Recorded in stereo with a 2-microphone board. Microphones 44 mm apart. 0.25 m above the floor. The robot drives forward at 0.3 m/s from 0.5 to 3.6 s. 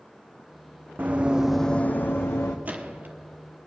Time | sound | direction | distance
1.0 | running footsteps | 40° right (ahead or behind) | 1.2 m
2.6 | a gunshot | 35° right (ahead or behind) | 1.1 m